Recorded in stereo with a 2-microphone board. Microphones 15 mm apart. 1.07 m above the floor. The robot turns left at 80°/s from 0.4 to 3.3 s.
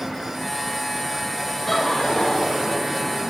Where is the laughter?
155° left, 4 m; by 2.8 s 65° left, 4 m.